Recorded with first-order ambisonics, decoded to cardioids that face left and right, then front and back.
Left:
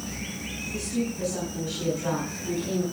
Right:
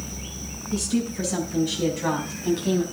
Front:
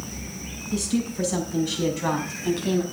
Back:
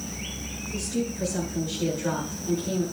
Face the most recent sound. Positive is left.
turn(degrees=-30)